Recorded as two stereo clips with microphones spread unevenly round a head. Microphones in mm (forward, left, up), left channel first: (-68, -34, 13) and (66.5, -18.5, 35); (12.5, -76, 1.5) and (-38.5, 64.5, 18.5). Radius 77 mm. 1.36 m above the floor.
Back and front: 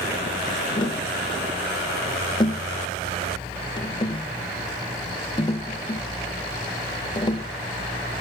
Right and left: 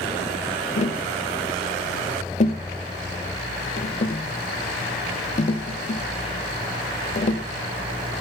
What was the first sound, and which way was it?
Tapping, 115° right.